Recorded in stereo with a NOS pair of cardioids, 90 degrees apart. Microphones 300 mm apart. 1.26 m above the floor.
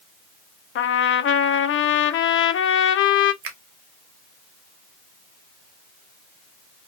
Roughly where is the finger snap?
Ahead right.